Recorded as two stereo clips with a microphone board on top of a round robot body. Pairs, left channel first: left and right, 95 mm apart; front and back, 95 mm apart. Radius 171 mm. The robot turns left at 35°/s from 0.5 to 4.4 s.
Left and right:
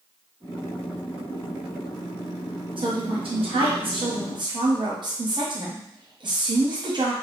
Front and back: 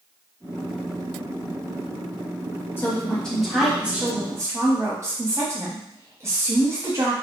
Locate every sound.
2.8 s a woman speaking: 70° right, 1.4 m; by 7.1 s 125° right, 1.4 m